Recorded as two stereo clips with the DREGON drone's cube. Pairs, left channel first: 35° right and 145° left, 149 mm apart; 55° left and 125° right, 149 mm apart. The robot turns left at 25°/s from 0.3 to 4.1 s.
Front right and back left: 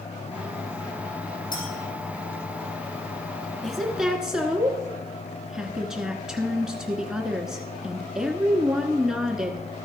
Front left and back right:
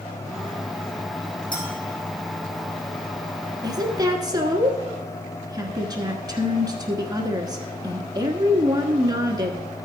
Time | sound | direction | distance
1.5 | a clink | 30° left | 3.5 m
3.6 | a woman speaking | 120° right | 1.1 m